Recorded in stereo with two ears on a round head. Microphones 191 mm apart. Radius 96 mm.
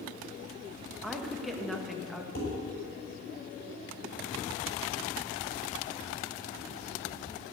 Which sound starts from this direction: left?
Dishes clattering, at 2.4 s.